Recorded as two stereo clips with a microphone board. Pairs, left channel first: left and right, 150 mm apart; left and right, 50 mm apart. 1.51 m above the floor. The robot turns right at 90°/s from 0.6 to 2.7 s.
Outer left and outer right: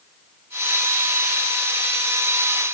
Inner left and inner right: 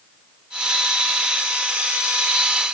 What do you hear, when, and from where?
Only background noise.